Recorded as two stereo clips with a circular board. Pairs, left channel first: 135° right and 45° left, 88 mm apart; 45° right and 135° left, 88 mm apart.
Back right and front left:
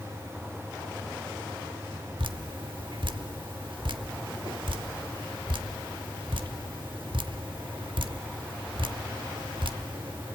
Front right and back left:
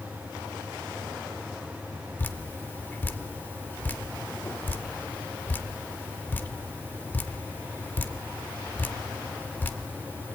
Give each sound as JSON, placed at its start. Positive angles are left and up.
{"t": 2.2, "sound": "dripping", "azimuth_deg": 25, "distance_m": 1.0}